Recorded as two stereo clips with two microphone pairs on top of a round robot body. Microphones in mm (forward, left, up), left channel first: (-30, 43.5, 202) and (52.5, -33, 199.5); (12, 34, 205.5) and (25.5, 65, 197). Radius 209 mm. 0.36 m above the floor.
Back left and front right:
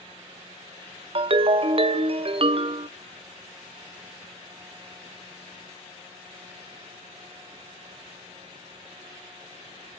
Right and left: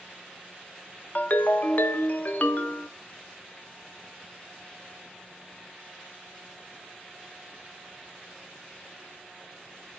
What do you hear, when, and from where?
1.1 s a ringtone: 65° right, 0.6 m